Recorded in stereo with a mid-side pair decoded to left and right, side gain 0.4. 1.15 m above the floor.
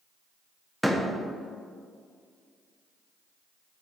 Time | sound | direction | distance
0.8 | a door slam | 5° left | 0.9 m